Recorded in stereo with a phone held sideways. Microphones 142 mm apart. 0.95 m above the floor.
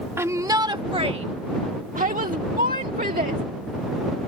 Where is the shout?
15° right (ahead or behind); by 3.4 s 75° right (ahead or behind).